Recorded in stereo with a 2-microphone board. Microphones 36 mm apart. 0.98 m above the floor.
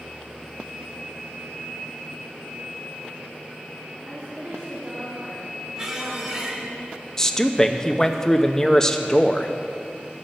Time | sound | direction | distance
4.0 | a woman speaking | 50° right (ahead or behind) | 2 m
5.8 | a squeak | 25° right (ahead or behind) | 1.8 m
7.2 | a man speaking | 15° left (ahead or behind) | 0.7 m